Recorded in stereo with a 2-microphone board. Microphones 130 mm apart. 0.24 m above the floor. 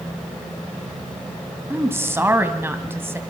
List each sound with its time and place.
1.7 s a woman speaking: 20° right (ahead or behind), 1.7 m